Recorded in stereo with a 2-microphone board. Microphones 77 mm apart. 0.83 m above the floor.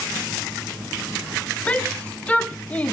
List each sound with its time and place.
1.7 s a shout: 15° left (ahead or behind), 0.6 m